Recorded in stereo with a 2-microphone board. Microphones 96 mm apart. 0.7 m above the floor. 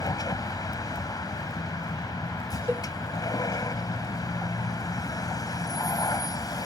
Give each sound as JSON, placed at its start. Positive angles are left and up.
{"t": 0.0, "sound": "a vehicle", "side_deg": 40}
{"t": 2.7, "sound": "a cowbell", "side_deg": -25}